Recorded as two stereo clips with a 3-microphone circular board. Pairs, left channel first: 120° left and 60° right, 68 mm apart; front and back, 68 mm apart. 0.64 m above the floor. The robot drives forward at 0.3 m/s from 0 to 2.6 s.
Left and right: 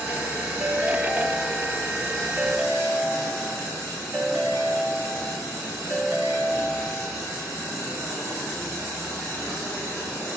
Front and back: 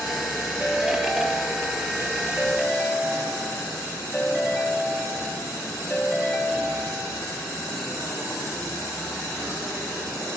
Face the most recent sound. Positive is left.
turn(degrees=-105)